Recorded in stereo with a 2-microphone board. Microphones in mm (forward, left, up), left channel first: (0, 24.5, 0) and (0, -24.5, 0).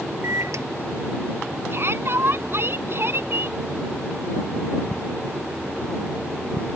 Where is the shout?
55° right (ahead or behind).